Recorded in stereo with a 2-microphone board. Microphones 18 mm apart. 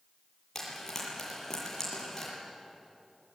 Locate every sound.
0.6 s frying: 20° left (ahead or behind), 8 m